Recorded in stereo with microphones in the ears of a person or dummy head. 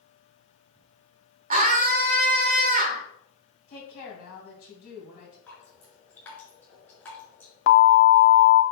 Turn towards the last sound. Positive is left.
turn(degrees=75)  # may be behind; listen again after turning